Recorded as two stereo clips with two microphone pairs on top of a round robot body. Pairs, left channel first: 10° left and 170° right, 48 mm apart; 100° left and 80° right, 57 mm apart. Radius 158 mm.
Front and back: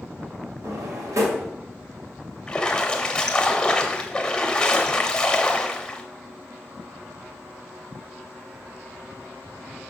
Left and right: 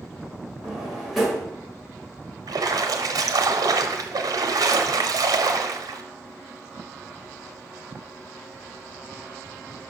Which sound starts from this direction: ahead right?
A splash, at 2.5 s.